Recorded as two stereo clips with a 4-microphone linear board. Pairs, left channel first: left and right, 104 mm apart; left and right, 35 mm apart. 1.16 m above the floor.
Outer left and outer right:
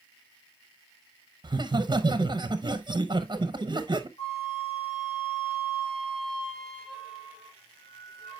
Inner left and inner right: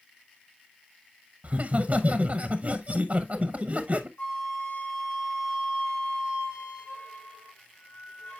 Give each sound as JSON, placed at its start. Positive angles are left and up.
{"t": 1.4, "sound": "laughter", "side_deg": -45, "distance_m": 0.7}
{"t": 4.2, "sound": "a flute", "side_deg": 80, "distance_m": 3.5}